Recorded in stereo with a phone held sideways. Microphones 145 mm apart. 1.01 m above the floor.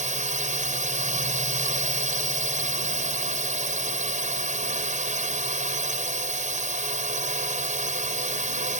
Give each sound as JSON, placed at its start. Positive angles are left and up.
{"t": 0.0, "sound": "a drone", "side_deg": -60}